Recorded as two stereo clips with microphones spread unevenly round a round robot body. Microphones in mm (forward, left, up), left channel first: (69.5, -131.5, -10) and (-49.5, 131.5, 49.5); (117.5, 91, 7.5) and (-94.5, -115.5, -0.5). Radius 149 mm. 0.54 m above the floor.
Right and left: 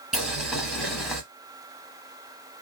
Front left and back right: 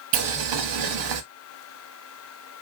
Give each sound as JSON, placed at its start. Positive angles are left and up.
{"t": 0.1, "sound": "boiling", "azimuth_deg": -160, "distance_m": 0.7}